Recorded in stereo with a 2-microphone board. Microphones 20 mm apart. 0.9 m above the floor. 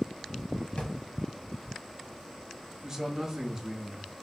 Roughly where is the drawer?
Left.